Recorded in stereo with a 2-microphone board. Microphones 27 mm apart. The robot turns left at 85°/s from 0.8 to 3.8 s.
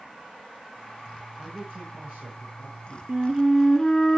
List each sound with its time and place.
1.4 s a man speaking: 5° right, 5 m; by 3.0 s 145° right, 5 m
3.1 s a flute: 150° right, 0.7 m; by 4.2 s 150° left, 0.7 m